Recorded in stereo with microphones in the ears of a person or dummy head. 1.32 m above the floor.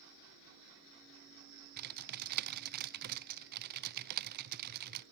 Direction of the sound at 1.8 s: 45° right (ahead or behind).